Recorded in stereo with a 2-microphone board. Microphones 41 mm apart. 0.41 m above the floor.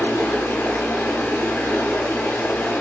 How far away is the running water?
About 0.9 m.